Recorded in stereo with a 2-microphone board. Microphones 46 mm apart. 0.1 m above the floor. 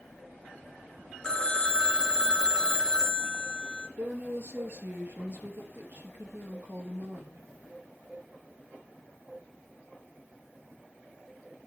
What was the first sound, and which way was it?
A phone ringing, 15° left (ahead or behind).